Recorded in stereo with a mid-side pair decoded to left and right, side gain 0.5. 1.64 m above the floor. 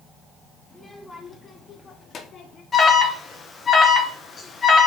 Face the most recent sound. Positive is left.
turn(degrees=35)